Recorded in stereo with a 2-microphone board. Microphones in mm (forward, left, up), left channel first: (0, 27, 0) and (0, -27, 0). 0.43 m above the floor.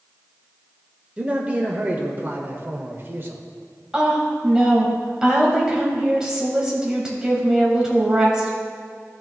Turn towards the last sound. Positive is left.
turn(degrees=-10)  # may be behind; listen again after turning